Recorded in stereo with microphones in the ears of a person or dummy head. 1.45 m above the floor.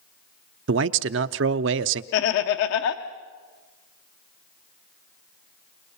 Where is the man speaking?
65° right (ahead or behind), 0.6 m.